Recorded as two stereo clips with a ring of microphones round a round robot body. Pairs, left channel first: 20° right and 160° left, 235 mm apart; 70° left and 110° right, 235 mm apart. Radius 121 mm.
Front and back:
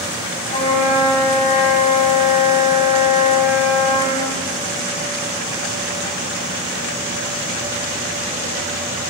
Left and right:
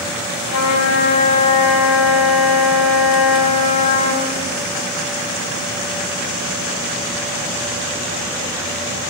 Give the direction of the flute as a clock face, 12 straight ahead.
11 o'clock.